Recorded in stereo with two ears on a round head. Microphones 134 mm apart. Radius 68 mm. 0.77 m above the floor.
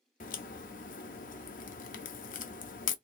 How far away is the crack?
About 0.5 m.